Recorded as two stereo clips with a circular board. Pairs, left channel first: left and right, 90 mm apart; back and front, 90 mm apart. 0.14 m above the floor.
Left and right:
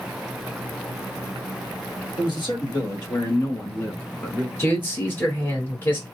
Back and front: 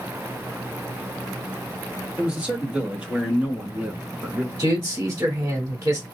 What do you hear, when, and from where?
2.2 s a man speaking: 80° left, 2.5 m; by 4.5 s 5° left, 1.1 m
4.6 s a man speaking: 45° left, 1.4 m